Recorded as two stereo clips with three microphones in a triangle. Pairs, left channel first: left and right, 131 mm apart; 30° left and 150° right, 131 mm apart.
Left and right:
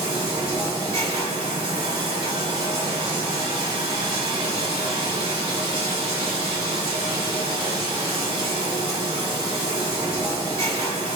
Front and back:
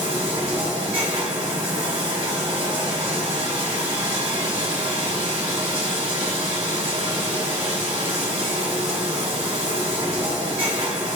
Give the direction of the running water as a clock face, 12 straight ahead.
4 o'clock.